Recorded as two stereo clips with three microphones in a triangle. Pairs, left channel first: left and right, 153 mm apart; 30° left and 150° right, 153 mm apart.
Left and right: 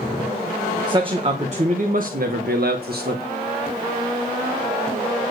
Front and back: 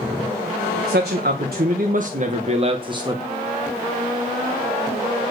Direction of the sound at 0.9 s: 150° right.